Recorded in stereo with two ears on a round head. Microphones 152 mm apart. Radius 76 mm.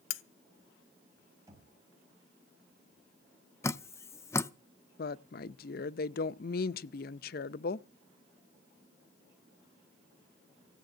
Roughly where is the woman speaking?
Left.